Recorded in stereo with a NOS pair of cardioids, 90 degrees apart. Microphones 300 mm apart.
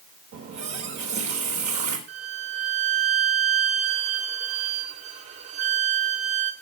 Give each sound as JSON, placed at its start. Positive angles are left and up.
{"t": 0.3, "sound": "a running tap", "azimuth_deg": -70, "distance_m": 4.0}
{"t": 2.1, "sound": "a violin", "azimuth_deg": -55, "distance_m": 3.0}